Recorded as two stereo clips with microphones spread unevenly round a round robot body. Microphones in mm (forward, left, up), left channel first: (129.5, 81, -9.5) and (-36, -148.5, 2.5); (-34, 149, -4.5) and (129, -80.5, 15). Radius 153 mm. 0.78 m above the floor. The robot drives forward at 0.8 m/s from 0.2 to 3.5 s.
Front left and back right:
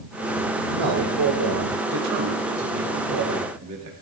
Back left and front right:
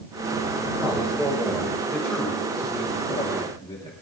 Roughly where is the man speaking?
Behind right.